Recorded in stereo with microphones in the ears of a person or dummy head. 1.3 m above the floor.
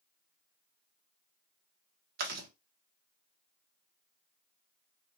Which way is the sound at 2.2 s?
50° right (ahead or behind).